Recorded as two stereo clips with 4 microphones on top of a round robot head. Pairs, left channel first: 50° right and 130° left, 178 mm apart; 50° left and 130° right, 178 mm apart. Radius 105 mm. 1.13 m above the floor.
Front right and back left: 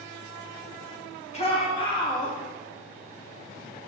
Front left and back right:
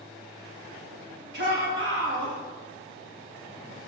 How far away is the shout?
About 2 m.